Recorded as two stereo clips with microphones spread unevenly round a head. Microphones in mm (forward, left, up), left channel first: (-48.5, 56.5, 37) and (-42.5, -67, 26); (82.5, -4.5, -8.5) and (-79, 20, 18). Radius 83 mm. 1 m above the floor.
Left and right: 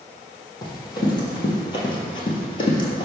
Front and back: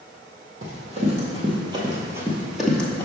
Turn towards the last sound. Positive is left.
turn(degrees=75)